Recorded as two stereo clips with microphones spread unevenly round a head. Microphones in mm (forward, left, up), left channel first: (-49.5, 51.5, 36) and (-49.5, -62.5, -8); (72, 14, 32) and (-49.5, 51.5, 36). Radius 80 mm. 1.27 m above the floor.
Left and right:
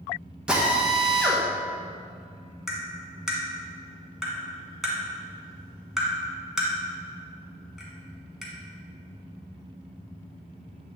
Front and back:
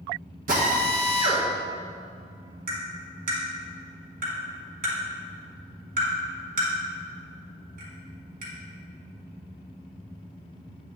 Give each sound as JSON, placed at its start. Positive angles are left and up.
{"t": 0.5, "sound": "a drill", "azimuth_deg": -170, "distance_m": 1.3}
{"t": 2.7, "sound": "tapping", "azimuth_deg": 165, "distance_m": 2.0}